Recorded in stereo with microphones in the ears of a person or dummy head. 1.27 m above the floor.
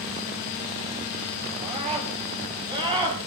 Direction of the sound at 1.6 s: 30° right (ahead or behind).